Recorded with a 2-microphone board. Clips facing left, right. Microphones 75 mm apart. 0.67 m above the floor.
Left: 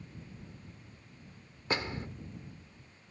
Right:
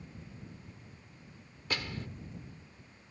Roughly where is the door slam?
Left.